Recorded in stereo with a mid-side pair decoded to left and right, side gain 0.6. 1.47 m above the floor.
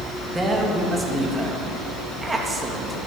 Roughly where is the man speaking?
Ahead.